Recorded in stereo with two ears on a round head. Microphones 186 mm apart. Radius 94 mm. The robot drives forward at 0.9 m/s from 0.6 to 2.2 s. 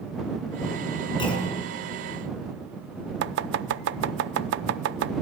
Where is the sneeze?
I don't hear a sneeze.